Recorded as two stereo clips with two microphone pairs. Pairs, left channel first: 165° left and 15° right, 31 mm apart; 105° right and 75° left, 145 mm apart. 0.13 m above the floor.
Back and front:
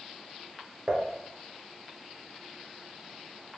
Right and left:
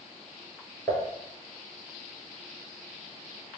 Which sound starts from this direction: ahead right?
Dishes clattering, at 0.9 s.